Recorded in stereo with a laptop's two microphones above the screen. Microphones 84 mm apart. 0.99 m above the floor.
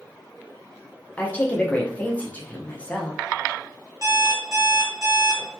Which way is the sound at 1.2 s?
15° left (ahead or behind).